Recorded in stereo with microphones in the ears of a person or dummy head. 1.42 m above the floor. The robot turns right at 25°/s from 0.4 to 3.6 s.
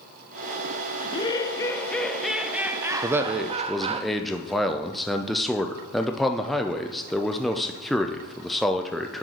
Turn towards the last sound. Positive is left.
turn(degrees=0)  # may be behind; listen again after turning